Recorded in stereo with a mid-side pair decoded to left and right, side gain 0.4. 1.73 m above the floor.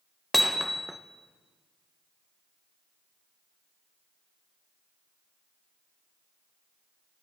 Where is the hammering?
5° left, 1.5 m.